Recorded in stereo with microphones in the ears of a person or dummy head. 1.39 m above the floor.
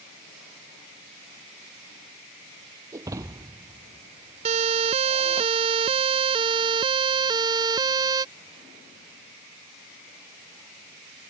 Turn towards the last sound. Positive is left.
turn(degrees=-20)  # may be behind; listen again after turning